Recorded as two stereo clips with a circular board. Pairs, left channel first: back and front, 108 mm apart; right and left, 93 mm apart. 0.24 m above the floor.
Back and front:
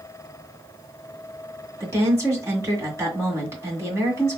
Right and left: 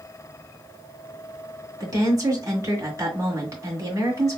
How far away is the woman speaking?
About 2 m.